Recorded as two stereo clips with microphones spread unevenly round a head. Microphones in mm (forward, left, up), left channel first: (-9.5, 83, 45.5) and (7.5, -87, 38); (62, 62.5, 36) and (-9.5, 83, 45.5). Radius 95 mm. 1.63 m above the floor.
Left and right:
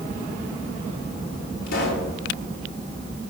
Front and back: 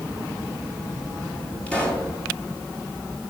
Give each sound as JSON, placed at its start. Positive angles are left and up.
{"t": 1.7, "sound": "a pop", "azimuth_deg": 60, "distance_m": 4.5}